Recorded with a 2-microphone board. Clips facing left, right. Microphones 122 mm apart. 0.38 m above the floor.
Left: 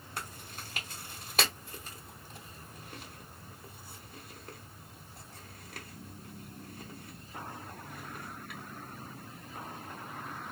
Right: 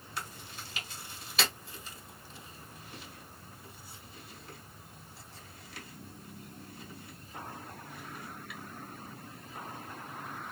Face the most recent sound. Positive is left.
turn(degrees=50)  # may be behind; listen again after turning